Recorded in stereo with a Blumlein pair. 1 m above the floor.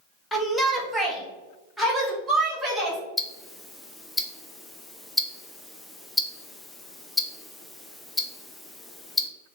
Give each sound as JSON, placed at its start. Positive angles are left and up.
{"t": 0.3, "sound": "a shout", "azimuth_deg": 10, "distance_m": 1.0}
{"t": 3.2, "sound": "ticking", "azimuth_deg": 5, "distance_m": 0.5}